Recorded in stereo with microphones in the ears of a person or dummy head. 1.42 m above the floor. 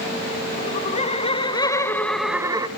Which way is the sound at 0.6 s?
40° left (ahead or behind).